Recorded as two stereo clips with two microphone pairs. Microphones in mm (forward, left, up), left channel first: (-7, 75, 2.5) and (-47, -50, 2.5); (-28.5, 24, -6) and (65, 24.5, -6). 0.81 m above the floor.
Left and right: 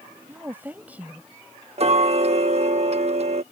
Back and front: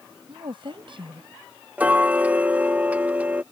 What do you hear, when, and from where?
0.3 s a woman speaking: 35° right; by 1.3 s 25° right
1.8 s ticking: 70° right